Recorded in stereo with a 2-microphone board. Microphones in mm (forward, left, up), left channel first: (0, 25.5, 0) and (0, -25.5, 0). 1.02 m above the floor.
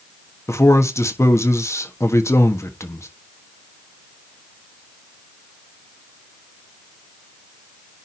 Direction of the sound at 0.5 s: 70° left (ahead or behind).